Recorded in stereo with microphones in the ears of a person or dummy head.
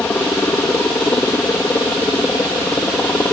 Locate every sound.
0.0 s a helicopter: 10° left (ahead or behind)